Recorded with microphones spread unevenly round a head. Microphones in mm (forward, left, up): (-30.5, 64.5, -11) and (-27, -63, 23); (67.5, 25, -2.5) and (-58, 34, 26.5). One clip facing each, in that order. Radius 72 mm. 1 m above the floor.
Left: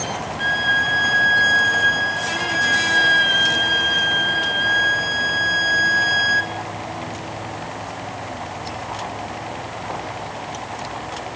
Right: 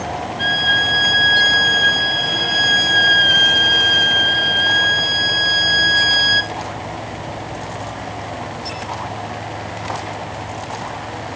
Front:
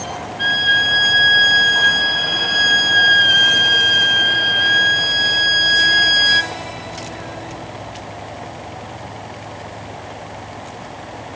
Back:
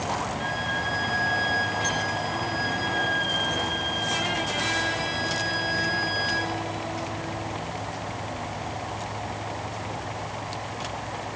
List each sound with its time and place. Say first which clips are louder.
0.4 s a violin: right 2 dB, front 6 dB; 30° right, 0.5 m